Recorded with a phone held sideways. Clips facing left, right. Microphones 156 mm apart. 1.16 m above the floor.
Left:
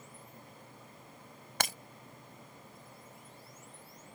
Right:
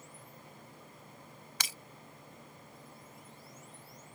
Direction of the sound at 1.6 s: 55° left (ahead or behind).